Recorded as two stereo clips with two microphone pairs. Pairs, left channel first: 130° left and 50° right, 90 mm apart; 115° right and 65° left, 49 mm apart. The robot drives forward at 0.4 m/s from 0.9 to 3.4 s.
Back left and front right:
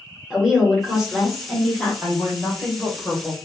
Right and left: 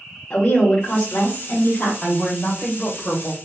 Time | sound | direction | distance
0.3 | a woman speaking | 135° right | 1.0 m
2.0 | a woman speaking | 120° right | 1.1 m